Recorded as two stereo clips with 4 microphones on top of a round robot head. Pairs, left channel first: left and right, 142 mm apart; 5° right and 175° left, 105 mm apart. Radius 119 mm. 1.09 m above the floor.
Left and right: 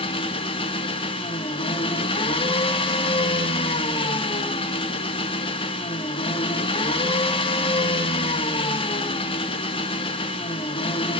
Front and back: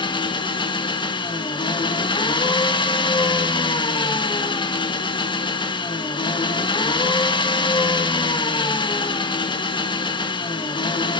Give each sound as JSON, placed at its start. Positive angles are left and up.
{"t": 0.0, "sound": "an engine running", "azimuth_deg": 35, "distance_m": 1.7}